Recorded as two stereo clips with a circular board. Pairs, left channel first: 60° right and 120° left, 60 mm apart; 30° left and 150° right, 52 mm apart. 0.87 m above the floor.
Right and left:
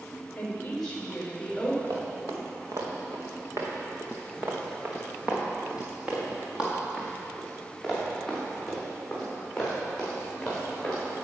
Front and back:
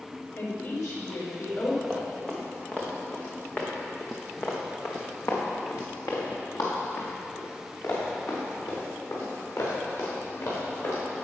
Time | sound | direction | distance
0.4 | a woman speaking | 10° left | 3.5 m
1.8 | running footsteps | 120° left | 4 m